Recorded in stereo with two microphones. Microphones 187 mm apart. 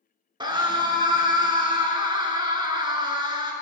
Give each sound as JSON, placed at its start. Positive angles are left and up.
{"t": 0.4, "sound": "a scream", "side_deg": -25, "distance_m": 1.1}